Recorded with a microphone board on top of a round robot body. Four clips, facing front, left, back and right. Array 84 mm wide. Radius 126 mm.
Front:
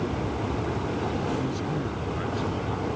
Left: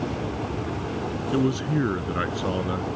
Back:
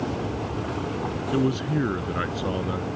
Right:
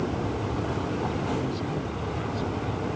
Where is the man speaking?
130° left; by 3.0 s 120° left.